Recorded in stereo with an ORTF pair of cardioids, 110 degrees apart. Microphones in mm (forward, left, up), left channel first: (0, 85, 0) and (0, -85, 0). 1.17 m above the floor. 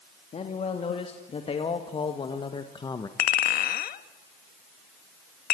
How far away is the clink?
About 1.3 m.